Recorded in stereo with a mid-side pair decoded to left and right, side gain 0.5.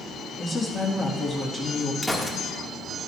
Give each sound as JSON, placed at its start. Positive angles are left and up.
{"t": 0.4, "sound": "a woman speaking", "azimuth_deg": 35, "distance_m": 2.0}
{"t": 2.0, "sound": "a gunshot", "azimuth_deg": 5, "distance_m": 1.5}